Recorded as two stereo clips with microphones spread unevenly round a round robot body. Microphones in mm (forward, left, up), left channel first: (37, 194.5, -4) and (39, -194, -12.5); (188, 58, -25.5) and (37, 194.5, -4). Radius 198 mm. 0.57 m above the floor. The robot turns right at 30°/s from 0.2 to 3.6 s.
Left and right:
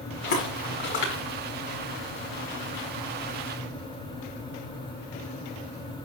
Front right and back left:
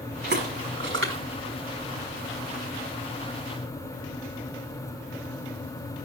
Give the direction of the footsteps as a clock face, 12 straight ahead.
9 o'clock.